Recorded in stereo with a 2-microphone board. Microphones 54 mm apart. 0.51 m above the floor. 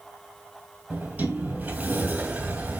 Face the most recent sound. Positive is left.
turn(degrees=-25)  # may be behind; listen again after turning